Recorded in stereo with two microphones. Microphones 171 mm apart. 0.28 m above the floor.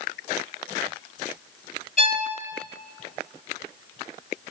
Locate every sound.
2.0 s a violin: 45° left (ahead or behind), 0.6 m